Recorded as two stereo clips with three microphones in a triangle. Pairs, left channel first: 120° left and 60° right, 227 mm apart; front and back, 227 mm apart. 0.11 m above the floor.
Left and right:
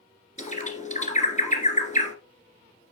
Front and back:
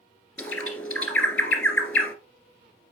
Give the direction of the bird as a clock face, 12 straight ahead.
9 o'clock.